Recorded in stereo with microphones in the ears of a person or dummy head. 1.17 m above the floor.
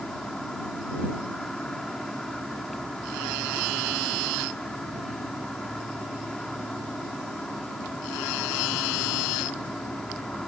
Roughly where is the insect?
Centre.